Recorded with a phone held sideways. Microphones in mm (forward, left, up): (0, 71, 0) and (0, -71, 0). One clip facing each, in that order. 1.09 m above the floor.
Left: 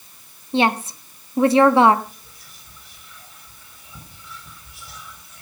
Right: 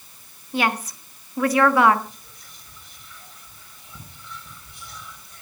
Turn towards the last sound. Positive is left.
turn(degrees=5)  # may be behind; listen again after turning